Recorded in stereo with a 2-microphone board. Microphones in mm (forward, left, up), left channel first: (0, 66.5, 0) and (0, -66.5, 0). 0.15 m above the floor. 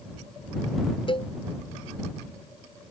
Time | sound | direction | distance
1.1 | a cowbell | 40° left (ahead or behind) | ?